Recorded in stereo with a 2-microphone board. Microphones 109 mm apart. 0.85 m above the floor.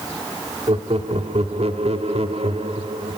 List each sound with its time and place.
0.7 s laughter: 65° right (ahead or behind), 3 m; by 3.2 s 60° right (ahead or behind), 2.5 m